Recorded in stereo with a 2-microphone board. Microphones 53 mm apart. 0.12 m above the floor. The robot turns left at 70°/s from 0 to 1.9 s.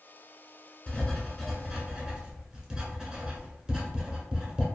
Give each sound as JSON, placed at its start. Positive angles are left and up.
{"t": 0.9, "sound": "writing", "side_deg": 20, "distance_m": 0.8}